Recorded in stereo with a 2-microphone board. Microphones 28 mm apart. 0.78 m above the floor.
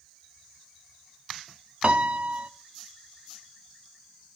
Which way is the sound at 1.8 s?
50° right (ahead or behind).